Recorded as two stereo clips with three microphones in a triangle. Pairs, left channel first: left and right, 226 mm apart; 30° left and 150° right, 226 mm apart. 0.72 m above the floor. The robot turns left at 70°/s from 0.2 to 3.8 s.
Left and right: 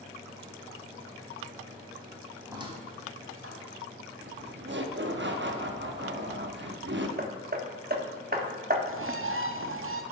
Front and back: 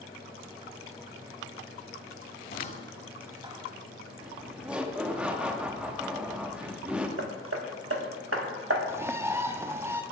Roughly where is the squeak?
Ahead.